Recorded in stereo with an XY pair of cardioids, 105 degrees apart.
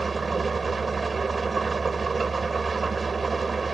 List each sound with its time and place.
0.0 s an engine running: 25° right